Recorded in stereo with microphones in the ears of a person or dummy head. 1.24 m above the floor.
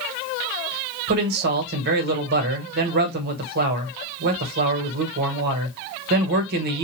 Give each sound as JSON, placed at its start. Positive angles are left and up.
{"t": 1.1, "sound": "a man speaking", "side_deg": -55, "distance_m": 1.2}